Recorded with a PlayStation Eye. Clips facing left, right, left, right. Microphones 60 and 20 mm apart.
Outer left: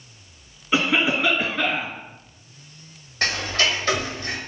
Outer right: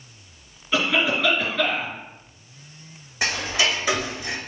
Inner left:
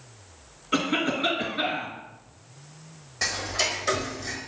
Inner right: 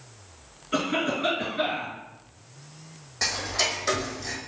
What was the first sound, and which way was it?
A cough, 10° left (ahead or behind).